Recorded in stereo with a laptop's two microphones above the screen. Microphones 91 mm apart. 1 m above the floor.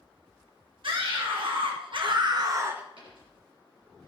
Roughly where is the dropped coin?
Right.